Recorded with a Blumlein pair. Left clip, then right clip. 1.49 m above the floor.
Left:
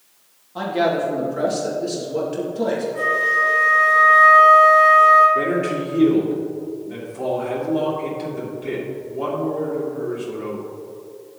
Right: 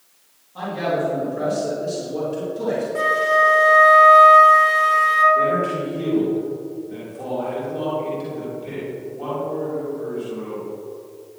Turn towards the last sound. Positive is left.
turn(degrees=40)